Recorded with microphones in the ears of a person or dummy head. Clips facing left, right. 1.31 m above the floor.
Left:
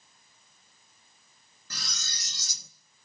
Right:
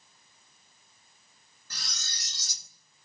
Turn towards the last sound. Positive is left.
turn(degrees=65)  # may be behind; listen again after turning